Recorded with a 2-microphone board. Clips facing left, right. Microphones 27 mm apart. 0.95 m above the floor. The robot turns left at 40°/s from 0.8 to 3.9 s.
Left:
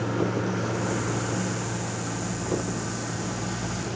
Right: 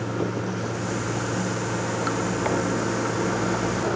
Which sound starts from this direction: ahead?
Running water, at 0.0 s.